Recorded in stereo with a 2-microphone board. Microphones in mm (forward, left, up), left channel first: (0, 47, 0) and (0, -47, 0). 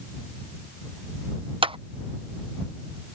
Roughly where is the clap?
Right.